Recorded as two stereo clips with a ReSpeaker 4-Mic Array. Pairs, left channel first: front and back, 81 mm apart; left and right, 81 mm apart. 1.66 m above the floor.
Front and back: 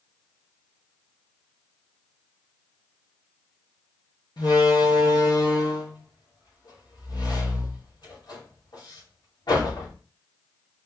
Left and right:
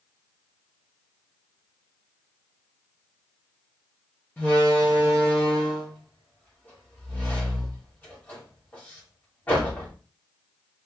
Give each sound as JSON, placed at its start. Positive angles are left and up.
{"t": 4.4, "sound": "a door slam", "azimuth_deg": 20, "distance_m": 2.5}